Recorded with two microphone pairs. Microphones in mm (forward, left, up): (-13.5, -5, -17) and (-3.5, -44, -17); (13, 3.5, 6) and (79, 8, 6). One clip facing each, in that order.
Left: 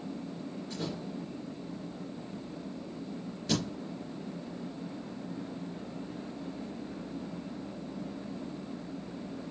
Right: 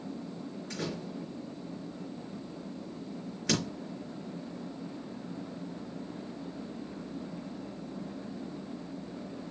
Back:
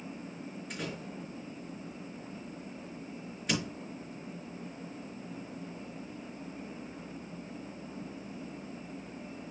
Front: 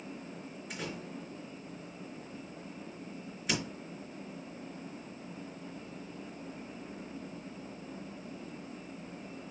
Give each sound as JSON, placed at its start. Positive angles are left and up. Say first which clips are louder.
{"t": 0.7, "sound": "a door slam", "louder": "right 1 dB, even", "azimuth_deg": -80, "distance_m": 4.0}